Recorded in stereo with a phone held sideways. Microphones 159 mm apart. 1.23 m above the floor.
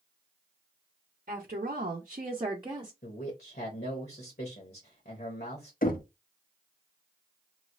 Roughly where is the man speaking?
Left.